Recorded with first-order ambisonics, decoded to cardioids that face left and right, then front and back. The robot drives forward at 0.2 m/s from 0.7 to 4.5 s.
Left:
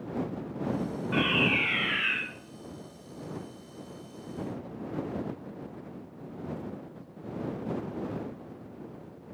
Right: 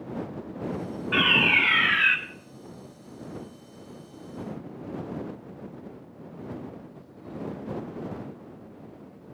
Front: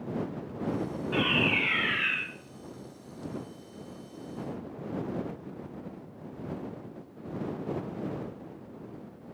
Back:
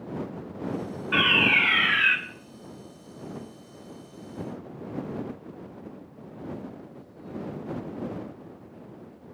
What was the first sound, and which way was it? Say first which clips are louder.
A fire alarm: right 6 dB, back 7 dB; 145° right.